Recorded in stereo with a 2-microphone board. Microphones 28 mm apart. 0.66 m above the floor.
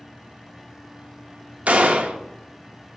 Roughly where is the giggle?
I don't hear a giggle.